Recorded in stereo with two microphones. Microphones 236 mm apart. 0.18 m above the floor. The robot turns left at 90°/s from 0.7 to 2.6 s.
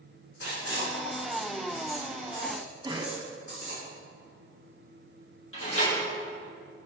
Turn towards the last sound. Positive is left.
turn(degrees=60)  # may be behind; listen again after turning